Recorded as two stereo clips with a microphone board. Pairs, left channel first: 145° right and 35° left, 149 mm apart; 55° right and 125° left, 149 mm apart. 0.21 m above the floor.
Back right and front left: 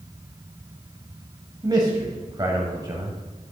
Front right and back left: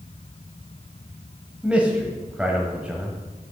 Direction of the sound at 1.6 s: 50° left.